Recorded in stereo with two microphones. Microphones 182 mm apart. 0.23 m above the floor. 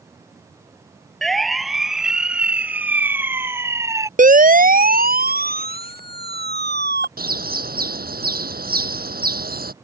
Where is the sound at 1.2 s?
Centre (ahead or behind); by 4.1 s 20° right (ahead or behind).